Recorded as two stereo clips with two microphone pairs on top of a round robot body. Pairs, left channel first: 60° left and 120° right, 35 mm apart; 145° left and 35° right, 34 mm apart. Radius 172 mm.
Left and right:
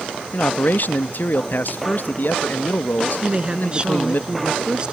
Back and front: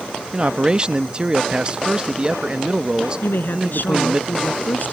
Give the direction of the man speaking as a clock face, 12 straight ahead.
11 o'clock.